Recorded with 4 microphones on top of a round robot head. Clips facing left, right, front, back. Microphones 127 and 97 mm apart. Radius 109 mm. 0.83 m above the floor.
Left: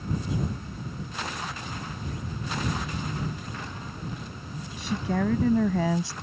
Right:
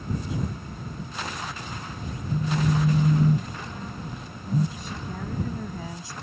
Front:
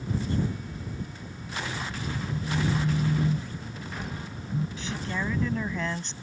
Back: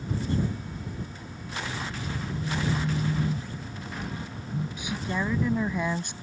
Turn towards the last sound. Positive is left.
turn(degrees=105)